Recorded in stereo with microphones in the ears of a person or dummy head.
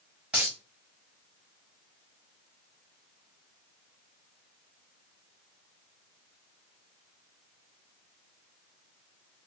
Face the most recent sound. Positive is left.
turn(degrees=-5)  # may be behind; listen again after turning